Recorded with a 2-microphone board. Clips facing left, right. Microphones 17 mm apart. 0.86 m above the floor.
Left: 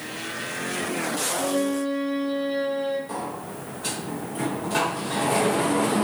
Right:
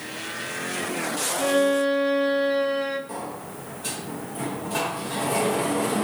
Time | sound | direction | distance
1.4 | a violin | 55° right (ahead or behind) | 0.5 m
3.1 | a sliding door | 20° left (ahead or behind) | 0.5 m